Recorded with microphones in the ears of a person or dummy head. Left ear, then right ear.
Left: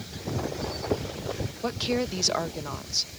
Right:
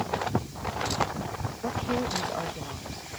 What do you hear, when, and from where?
1.6 s a woman speaking: 75° left (ahead or behind)